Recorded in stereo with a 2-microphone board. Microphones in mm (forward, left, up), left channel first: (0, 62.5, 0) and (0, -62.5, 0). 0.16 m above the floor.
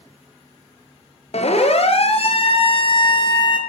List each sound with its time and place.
1.3 s a siren: 60° left (ahead or behind), 3 m; by 3.6 s 40° left (ahead or behind), 3.5 m